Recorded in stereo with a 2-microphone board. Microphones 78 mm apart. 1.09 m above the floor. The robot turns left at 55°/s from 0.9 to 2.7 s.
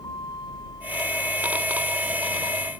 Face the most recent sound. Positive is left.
turn(degrees=35)  # may be behind; listen again after turning